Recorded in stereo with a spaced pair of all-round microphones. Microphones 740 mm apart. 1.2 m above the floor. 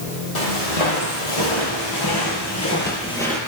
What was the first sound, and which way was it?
Footsteps, 55° left (ahead or behind).